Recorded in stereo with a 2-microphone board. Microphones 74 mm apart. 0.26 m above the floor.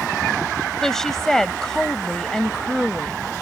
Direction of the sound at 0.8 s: 5° left (ahead or behind).